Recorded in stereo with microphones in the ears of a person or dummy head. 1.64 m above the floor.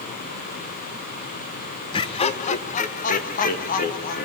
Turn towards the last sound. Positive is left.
turn(degrees=45)  # may be behind; listen again after turning